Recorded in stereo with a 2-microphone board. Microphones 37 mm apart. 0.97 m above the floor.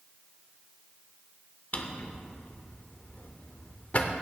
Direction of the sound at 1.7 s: 40° left (ahead or behind).